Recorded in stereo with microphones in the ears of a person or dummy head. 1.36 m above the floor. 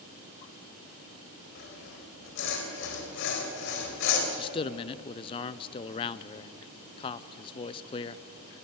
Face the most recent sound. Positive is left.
turn(degrees=25)  # may be behind; listen again after turning